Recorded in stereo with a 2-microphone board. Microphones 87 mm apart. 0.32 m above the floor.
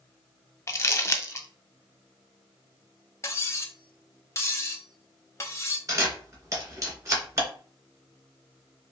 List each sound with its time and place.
0.7 s crumpling: 30° left (ahead or behind), 0.6 m
3.2 s cutlery clinking: 30° left (ahead or behind), 0.7 m
5.9 s a camera shutter: 40° right (ahead or behind), 1.6 m